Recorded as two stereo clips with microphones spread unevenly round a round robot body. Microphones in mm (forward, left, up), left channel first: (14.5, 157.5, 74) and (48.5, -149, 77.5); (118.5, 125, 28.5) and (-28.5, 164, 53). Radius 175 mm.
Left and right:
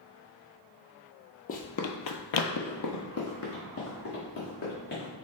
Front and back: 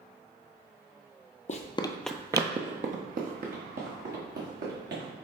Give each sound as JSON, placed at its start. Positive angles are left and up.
{"t": 1.5, "sound": "running footsteps", "azimuth_deg": 30, "distance_m": 0.7}